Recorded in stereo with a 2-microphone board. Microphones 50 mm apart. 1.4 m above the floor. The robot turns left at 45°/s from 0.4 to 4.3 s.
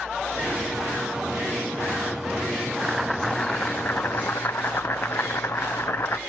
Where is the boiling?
170° right, 0.8 m; by 6.2 s 120° left, 0.8 m.